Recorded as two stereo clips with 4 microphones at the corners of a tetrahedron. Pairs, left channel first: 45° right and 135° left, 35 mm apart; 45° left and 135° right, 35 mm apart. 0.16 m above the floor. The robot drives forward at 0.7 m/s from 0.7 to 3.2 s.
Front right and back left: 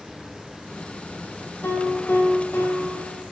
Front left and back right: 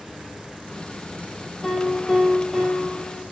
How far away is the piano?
About 4.5 m.